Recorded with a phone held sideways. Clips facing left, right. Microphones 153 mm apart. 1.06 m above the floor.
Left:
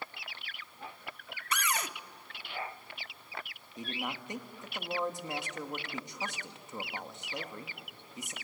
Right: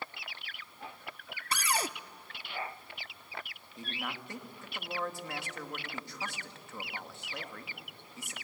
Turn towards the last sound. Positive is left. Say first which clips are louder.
# left 2 dB
turn(degrees=20)  # may be behind; listen again after turning